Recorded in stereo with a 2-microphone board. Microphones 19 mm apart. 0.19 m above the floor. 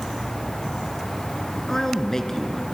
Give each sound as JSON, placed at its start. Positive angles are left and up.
{"t": 1.7, "sound": "a man speaking", "side_deg": 25, "distance_m": 2.0}